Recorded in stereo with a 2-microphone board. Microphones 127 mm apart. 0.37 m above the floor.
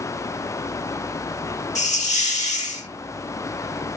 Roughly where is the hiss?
Left.